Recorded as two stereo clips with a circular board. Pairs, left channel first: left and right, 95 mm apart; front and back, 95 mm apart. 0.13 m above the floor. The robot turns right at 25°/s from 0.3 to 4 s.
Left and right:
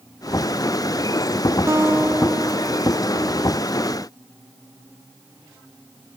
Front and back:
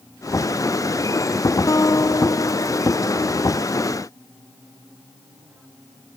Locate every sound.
1.7 s a guitar: 40° right, 0.6 m; by 3.7 s 10° left, 0.6 m